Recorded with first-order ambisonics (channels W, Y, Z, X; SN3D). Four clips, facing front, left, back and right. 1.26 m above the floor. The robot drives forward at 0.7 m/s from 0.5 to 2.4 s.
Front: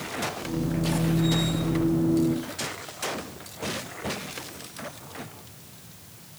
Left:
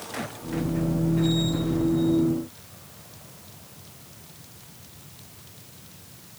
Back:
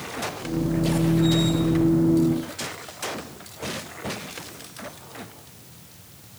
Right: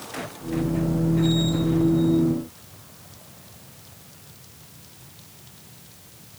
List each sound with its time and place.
Only background noise.